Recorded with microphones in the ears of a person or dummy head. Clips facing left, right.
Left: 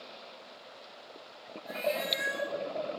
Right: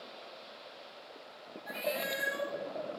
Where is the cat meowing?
35° right (ahead or behind), 0.9 m.